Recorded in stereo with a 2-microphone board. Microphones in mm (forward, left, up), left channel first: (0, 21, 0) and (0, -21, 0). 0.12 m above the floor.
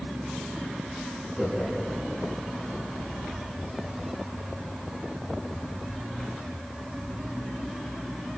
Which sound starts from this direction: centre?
Laughter, at 1.4 s.